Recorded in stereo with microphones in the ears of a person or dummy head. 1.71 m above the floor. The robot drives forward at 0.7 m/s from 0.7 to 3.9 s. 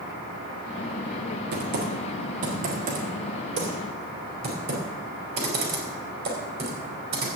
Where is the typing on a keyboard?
50° right (ahead or behind), 1.7 m; by 7.4 s 30° right (ahead or behind), 2.5 m.